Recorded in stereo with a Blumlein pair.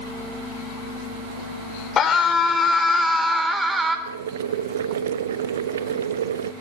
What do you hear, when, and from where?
2.0 s a scream: 25° left, 4.5 m; by 4.0 s 15° right, 4.5 m
4.1 s boiling: 65° right, 0.8 m